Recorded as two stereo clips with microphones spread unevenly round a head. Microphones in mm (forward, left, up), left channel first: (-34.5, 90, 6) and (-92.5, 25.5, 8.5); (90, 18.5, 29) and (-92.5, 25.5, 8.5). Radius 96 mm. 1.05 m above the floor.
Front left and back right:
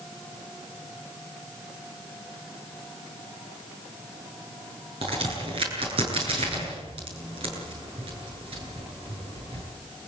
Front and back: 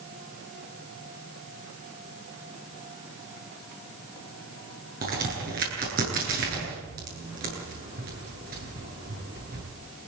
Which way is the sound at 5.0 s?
135° right.